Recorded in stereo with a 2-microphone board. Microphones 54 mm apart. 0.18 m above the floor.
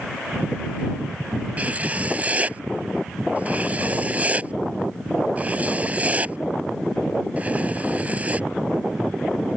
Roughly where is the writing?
Right.